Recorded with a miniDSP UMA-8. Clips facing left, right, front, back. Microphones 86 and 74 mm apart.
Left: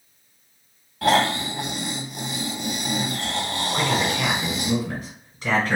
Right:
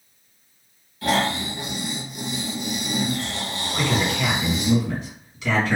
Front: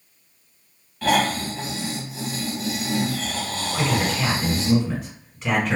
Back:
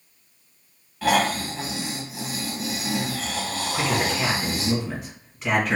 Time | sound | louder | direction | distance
1.0 | snoring | left 3 dB, front 1 dB | 95° left | 0.9 m
3.7 | a man speaking | even, front 1 dB | 90° left | 1.7 m